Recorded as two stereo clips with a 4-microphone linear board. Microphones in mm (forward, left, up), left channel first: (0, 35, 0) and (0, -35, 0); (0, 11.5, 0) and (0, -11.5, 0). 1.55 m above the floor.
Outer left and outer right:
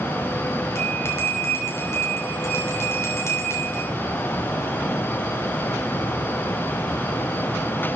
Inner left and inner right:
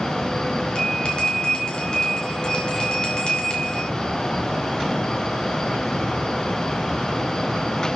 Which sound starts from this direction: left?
A bell, at 0.8 s.